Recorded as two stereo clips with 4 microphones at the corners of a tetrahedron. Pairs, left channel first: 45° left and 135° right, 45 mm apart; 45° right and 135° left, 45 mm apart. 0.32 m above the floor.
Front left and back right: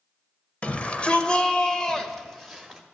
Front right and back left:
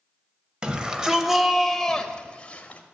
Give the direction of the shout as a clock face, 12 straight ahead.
9 o'clock.